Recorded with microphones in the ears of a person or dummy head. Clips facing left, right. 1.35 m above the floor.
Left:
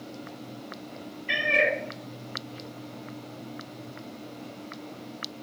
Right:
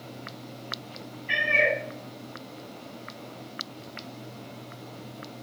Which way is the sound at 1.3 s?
55° left (ahead or behind).